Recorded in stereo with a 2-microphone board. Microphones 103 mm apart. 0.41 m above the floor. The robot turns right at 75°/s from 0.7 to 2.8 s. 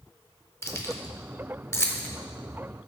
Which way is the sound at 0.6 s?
25° left (ahead or behind).